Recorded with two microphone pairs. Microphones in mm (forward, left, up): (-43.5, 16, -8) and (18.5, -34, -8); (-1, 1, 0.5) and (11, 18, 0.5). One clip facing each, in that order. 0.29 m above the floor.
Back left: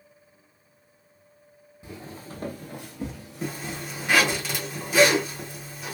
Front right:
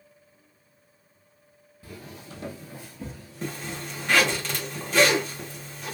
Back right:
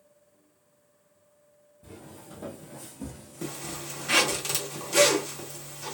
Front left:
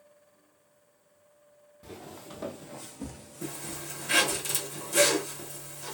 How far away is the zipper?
About 1.1 m.